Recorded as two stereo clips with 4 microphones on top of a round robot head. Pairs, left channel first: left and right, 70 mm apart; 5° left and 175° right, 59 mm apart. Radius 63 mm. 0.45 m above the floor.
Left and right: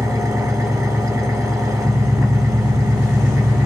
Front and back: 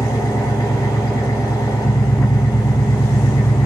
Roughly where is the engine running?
Ahead right.